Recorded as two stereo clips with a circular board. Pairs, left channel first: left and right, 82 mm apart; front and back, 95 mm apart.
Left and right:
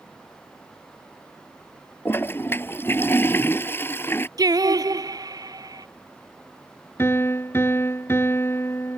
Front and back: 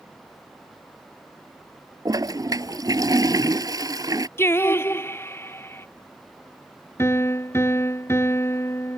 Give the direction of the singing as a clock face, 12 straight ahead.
2 o'clock.